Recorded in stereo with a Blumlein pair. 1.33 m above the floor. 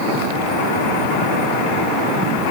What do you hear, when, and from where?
Only background noise.